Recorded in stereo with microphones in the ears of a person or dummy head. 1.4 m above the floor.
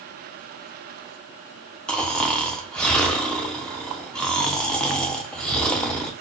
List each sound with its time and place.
1.9 s snoring: 10° left (ahead or behind), 0.6 m